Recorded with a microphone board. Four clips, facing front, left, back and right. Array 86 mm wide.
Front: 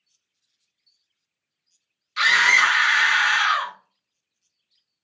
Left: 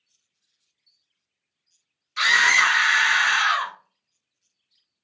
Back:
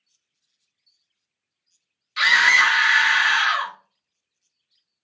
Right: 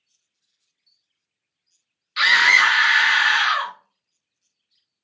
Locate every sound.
2.2 s a scream: 95° right, 0.9 m